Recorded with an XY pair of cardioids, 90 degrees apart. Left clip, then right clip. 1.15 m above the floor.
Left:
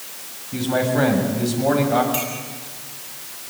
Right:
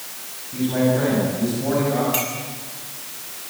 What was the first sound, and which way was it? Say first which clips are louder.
A man speaking: even; 65° left.